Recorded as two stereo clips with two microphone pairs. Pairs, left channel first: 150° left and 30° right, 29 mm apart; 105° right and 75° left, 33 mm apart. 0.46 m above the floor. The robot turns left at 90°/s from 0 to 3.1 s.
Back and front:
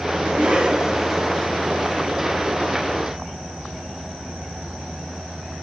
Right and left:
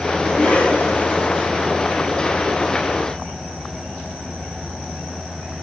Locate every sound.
0.2 s a cough: 35° right, 3.5 m; by 1.5 s 145° right, 3.5 m